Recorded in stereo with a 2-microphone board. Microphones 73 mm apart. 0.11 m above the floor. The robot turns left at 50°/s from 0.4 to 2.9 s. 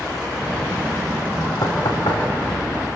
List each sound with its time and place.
1.6 s knocking: 60° left (ahead or behind), 5 m; by 3.0 s 50° left (ahead or behind), 5 m